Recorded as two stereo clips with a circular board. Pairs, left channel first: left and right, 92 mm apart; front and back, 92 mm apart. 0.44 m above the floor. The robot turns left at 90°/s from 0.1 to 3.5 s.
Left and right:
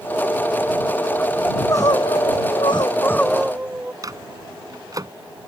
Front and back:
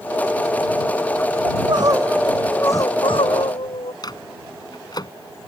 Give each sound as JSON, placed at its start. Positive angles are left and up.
{"t": 1.4, "sound": "crying", "azimuth_deg": 170}
{"t": 4.0, "sound": "a microwave", "azimuth_deg": -40}